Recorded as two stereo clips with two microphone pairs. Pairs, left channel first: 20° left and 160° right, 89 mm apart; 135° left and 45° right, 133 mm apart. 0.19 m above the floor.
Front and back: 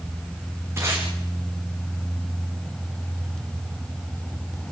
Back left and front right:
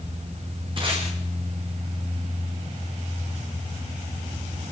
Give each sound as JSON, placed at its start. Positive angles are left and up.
{"t": 0.8, "sound": "tape being pulled", "azimuth_deg": -100, "distance_m": 5.5}